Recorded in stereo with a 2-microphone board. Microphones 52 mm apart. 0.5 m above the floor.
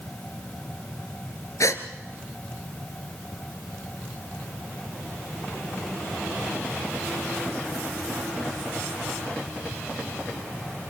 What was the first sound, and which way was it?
A gasp, 80° left.